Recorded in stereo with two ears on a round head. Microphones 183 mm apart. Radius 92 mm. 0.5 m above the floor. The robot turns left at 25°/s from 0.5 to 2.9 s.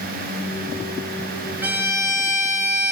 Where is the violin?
10° right, 2 m; by 2.9 s 40° right, 2 m.